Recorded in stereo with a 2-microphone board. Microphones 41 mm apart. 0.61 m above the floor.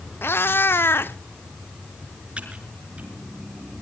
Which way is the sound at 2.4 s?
30° right (ahead or behind).